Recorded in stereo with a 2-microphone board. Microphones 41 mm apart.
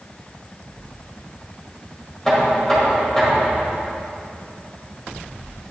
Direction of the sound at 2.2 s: 5° left (ahead or behind).